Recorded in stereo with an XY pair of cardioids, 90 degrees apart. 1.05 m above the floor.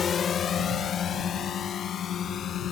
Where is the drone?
55° left; by 2.7 s 70° left.